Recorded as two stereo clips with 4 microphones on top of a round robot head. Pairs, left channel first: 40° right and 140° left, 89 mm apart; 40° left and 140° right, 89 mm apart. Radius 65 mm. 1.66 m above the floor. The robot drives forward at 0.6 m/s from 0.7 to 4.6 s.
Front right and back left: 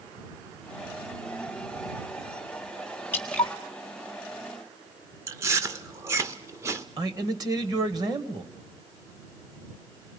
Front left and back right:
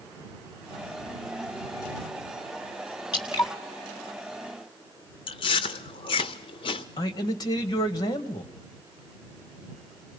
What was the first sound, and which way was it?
Dripping, 20° left.